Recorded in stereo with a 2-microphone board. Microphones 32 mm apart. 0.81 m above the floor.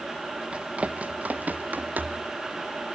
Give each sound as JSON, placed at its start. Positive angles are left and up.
{"t": 0.5, "sound": "running footsteps", "side_deg": -35, "distance_m": 1.3}